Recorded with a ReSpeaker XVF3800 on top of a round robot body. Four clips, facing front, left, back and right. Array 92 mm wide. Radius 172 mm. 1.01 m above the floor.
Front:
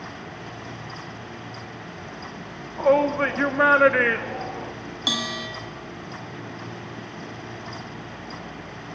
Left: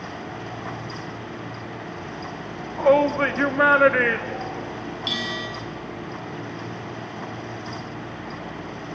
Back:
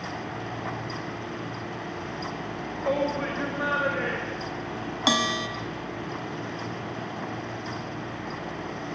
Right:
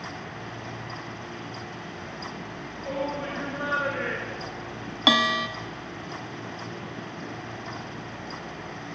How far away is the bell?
About 1.5 m.